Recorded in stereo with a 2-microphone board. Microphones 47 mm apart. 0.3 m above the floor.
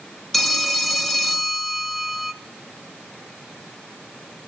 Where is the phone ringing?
5° left (ahead or behind), 0.7 m.